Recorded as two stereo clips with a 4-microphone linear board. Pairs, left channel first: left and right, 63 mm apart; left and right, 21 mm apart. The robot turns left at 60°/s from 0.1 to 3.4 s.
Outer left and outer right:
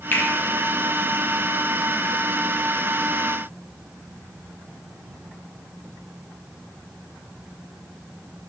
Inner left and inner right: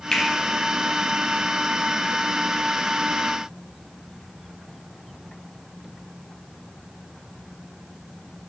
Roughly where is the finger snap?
Left.